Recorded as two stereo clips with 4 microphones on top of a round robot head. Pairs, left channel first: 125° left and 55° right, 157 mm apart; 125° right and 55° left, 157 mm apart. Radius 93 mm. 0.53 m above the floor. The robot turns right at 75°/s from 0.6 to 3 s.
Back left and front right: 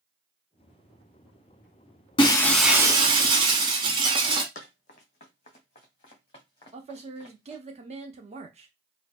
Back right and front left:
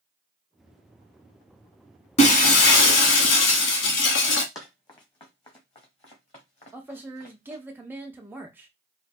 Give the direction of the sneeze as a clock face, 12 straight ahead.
I don't hear a sneeze.